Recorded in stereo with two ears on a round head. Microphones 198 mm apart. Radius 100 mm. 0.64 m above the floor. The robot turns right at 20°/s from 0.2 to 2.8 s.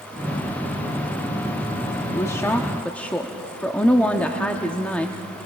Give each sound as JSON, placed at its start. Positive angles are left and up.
{"t": 2.1, "sound": "a woman speaking", "side_deg": 15, "distance_m": 0.8}